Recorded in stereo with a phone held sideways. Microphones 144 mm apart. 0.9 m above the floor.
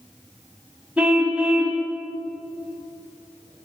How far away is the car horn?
About 2.5 m.